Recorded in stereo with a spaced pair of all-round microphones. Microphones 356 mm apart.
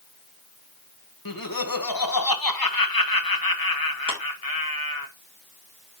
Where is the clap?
60° left (ahead or behind), 4 m.